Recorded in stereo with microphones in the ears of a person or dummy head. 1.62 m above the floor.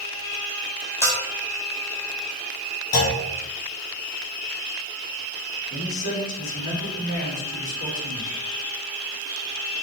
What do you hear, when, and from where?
1.0 s a bell: 15° left (ahead or behind), 0.9 m
2.9 s a clunk: 70° left (ahead or behind), 1.9 m
5.7 s a man speaking: 80° left, 3 m